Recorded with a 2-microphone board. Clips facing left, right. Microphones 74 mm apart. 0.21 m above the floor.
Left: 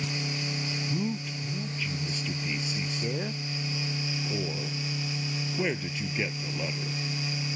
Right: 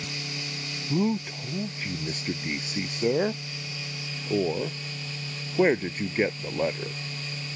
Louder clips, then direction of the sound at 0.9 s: Right 9 dB; 45° right (ahead or behind).